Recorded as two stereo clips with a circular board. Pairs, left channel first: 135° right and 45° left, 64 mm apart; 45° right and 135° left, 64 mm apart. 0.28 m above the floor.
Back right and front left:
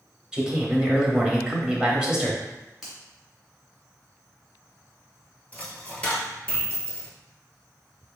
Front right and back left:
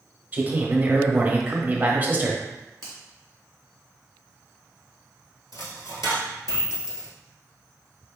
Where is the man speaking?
110° left, 1.0 m.